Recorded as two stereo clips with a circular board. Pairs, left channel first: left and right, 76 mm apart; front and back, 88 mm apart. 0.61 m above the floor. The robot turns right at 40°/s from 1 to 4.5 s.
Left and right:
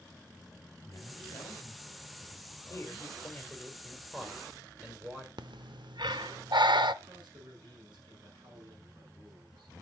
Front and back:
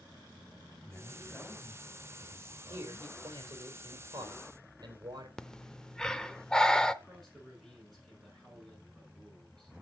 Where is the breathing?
80° right, 0.6 m.